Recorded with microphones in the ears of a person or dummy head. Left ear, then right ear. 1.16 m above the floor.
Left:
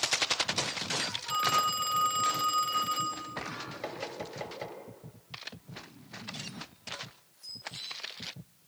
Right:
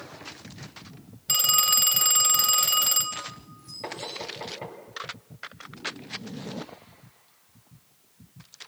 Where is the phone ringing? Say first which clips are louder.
Right 5 dB; 40° right (ahead or behind), 1.4 m.